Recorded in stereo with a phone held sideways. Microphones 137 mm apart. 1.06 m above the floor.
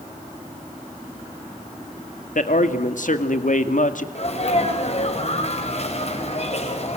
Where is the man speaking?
70° left (ahead or behind), 2 m.